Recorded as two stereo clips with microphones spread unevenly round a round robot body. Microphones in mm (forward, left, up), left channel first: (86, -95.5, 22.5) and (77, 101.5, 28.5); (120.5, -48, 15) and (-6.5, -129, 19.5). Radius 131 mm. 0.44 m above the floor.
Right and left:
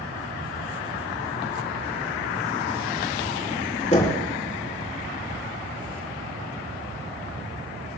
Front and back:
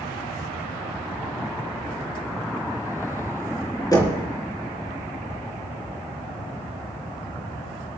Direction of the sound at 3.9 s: 35° right.